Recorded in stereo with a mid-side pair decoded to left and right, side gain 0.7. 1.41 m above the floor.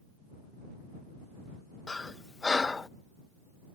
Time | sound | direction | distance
1.9 | breathing | 20° left | ?